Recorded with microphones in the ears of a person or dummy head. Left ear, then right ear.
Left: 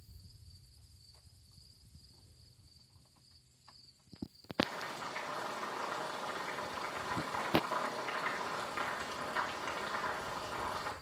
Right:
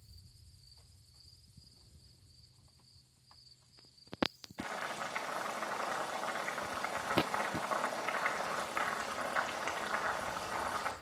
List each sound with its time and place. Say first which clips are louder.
4.6 s boiling: left 2 dB; 40° right (ahead or behind), 2 m